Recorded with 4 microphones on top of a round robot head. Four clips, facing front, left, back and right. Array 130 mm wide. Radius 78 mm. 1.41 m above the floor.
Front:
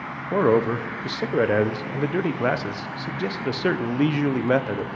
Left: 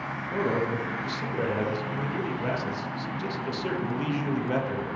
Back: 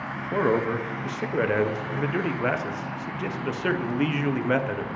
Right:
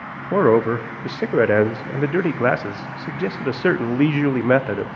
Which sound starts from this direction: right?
A man speaking, at 0.3 s.